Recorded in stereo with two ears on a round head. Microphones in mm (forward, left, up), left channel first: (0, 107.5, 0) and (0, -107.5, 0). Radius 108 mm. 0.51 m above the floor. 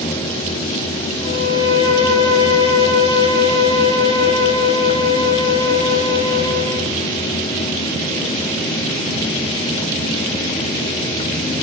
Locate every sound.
1.2 s a violin: 70° left (ahead or behind), 6.5 m